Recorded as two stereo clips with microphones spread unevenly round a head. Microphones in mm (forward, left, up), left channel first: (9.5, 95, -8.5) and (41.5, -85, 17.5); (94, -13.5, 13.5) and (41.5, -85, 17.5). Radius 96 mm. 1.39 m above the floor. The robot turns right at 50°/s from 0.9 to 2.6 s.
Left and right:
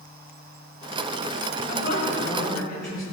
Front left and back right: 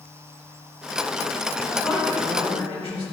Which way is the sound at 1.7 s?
145° left.